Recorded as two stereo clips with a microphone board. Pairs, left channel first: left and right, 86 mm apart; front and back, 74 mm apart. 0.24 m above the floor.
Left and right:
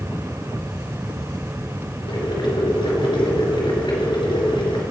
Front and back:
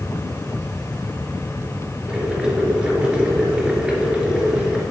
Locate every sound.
2.1 s boiling: 100° left, 3 m